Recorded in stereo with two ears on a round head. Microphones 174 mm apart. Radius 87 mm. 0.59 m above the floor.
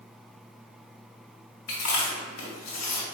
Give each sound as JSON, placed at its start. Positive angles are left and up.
{"t": 1.7, "sound": "chewing", "side_deg": 70, "distance_m": 1.6}